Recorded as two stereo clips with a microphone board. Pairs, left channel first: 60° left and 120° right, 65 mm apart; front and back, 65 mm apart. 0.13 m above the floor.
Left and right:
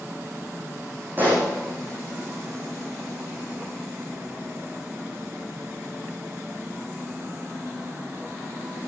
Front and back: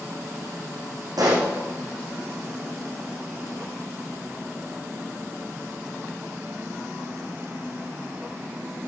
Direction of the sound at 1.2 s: Straight behind.